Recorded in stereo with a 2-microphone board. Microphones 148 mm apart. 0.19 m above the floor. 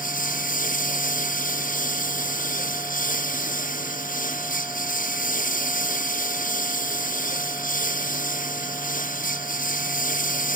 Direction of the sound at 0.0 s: 65° left (ahead or behind).